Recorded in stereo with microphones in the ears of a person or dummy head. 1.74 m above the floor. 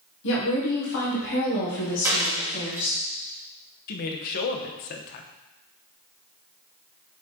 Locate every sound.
0.2 s a woman speaking: 70° left (ahead or behind), 1.8 m
2.0 s a dropped coin: 15° right (ahead or behind), 2 m
3.9 s a woman speaking: 50° left (ahead or behind), 1.0 m